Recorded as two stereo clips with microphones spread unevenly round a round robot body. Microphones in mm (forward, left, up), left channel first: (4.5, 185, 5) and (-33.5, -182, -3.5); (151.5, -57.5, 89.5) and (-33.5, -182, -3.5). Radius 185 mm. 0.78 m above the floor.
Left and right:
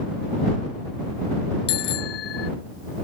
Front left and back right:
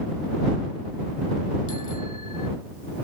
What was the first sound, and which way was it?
A bicycle bell, 105° left.